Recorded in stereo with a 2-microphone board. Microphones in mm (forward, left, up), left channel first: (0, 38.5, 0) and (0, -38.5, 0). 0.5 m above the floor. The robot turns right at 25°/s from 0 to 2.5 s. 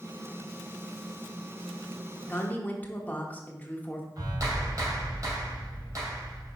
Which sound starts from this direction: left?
A woman speaking, at 2.3 s.